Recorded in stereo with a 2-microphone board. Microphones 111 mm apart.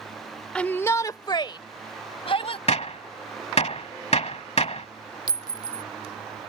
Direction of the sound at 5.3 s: 45° right (ahead or behind).